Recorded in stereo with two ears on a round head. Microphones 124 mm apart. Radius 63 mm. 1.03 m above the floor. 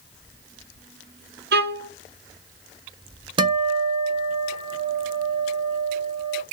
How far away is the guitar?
About 0.5 m.